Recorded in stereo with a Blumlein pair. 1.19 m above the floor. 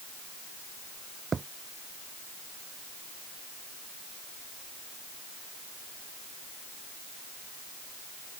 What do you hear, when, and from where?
1.3 s a thud: 15° right